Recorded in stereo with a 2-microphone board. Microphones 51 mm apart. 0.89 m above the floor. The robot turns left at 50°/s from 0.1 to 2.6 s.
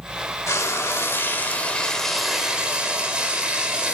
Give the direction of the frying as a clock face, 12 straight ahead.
9 o'clock.